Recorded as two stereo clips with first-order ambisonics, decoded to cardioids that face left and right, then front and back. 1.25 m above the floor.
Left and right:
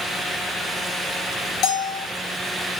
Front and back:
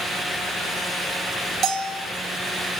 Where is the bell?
125° left, 2.5 m.